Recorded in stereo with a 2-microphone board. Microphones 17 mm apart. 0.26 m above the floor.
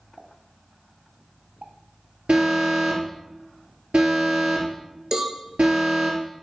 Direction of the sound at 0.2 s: 50° right (ahead or behind).